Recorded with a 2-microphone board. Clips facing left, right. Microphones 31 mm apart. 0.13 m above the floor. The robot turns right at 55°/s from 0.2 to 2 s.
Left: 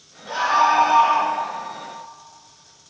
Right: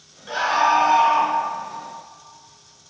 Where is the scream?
15° right (ahead or behind), 1.3 m; by 1.3 s 5° left (ahead or behind), 1.3 m.